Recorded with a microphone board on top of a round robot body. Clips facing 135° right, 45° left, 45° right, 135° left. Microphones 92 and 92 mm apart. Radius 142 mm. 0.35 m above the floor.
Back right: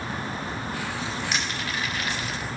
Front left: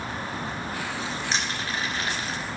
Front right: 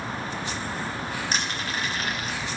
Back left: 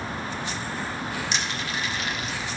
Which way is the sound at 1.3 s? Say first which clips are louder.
Even, even; 5° right.